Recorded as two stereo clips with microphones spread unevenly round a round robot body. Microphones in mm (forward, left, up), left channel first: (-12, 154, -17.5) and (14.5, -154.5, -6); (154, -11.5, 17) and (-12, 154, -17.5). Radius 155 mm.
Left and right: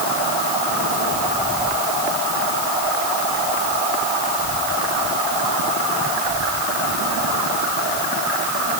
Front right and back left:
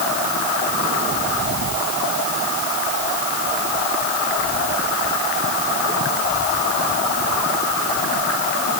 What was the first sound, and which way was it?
Only background noise.